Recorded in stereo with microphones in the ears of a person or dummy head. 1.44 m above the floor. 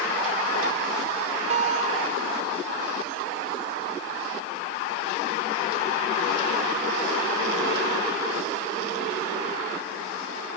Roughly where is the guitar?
Right.